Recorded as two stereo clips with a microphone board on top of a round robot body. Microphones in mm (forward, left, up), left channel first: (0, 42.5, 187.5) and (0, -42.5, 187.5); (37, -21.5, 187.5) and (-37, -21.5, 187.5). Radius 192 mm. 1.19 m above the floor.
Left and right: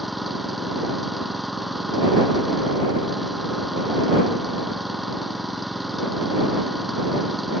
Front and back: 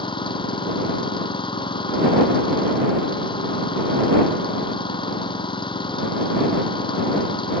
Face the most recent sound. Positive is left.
turn(degrees=0)